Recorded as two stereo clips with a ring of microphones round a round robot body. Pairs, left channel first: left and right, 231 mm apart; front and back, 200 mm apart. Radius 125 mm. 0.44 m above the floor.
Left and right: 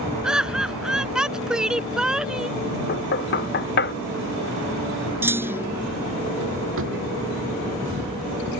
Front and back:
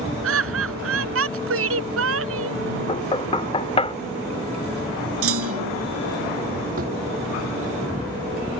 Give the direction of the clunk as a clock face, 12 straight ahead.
6 o'clock.